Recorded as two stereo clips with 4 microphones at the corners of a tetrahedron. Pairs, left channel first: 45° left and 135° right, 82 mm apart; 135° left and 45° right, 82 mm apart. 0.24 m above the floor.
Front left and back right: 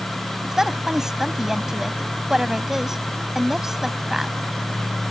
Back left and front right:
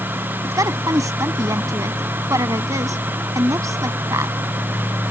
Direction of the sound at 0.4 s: 55° right.